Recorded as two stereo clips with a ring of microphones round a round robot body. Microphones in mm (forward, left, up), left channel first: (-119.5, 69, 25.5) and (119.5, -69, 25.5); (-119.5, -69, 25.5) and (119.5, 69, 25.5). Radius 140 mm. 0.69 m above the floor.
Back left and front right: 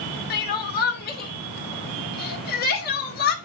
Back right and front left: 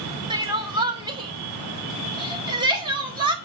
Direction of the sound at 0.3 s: 100° left.